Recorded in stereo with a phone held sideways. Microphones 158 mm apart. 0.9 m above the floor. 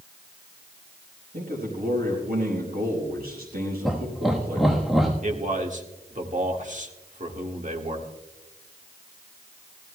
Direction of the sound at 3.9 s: Centre (ahead or behind).